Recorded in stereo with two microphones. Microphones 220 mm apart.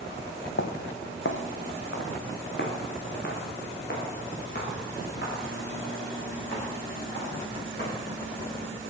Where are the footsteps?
65° left (ahead or behind), 0.7 m; by 7.9 s 50° left (ahead or behind), 8 m.